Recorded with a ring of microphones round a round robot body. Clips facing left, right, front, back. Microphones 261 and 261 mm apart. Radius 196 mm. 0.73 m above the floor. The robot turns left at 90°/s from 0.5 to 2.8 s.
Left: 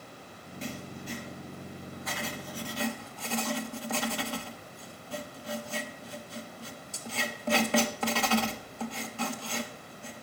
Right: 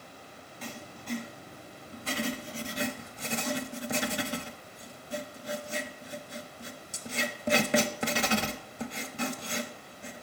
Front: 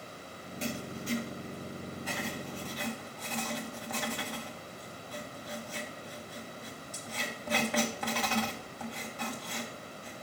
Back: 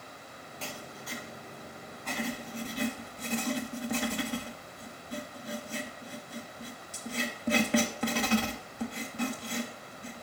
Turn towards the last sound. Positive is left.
turn(degrees=-140)